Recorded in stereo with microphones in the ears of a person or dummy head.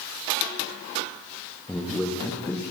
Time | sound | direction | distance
1.7 | a man speaking | 5° left (ahead or behind) | 0.5 m